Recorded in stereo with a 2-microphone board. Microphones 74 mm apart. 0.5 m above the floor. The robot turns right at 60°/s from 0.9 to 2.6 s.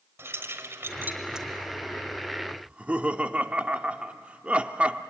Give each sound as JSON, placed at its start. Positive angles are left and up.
{"t": 0.2, "sound": "keys jangling", "side_deg": -35, "distance_m": 1.6}
{"t": 2.6, "sound": "laughter", "side_deg": -20, "distance_m": 0.7}